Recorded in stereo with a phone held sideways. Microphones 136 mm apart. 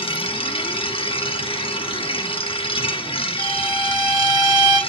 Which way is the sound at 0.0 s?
40° left (ahead or behind).